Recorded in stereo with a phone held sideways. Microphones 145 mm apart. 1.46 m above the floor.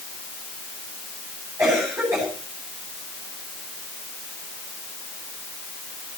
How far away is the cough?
About 9 m.